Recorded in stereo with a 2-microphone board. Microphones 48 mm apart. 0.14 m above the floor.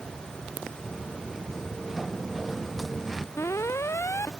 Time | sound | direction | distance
0.8 | footsteps | 5° right (ahead or behind) | ?
3.4 | an alarm | 75° left (ahead or behind) | ?